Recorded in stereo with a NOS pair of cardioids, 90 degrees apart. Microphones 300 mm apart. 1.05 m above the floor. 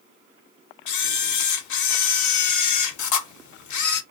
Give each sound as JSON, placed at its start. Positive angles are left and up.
{"t": 0.9, "sound": "a camera shutter", "azimuth_deg": 70, "distance_m": 0.8}